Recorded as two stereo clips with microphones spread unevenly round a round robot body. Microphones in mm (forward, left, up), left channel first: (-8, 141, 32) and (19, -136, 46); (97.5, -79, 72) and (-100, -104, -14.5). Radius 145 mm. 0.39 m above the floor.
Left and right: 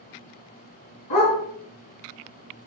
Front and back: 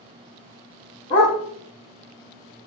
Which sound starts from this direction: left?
A dog barking, at 1.1 s.